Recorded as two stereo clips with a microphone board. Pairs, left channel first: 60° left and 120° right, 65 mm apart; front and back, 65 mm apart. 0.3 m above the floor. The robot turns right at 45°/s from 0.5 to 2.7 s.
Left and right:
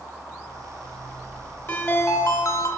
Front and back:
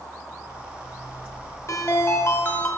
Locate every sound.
1.7 s a ringtone: 15° left, 1.2 m; by 2.7 s 60° left, 1.2 m